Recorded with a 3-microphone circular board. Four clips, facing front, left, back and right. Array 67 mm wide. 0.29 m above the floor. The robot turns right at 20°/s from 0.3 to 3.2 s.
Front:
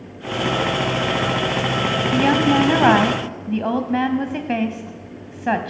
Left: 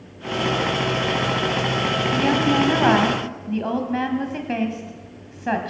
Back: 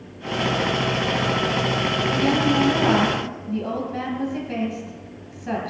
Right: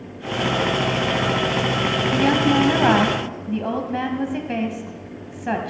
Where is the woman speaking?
15° right, 1.6 m; by 5.7 s 5° left, 1.6 m.